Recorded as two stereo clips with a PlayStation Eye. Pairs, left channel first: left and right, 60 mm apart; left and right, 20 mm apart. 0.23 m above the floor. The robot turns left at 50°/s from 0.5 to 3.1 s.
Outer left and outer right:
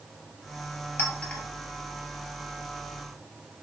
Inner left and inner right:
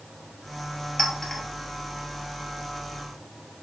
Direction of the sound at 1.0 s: 35° left (ahead or behind).